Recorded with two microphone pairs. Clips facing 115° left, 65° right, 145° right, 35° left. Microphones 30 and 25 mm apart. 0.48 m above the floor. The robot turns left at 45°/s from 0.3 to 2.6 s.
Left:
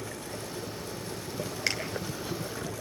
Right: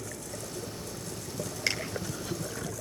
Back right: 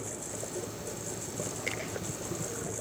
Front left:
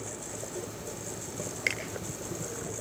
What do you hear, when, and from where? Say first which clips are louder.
1.7 s a finger snap: even, front left 6 dB; 35° left, 8.5 m; by 1.8 s 30° left, 8.5 m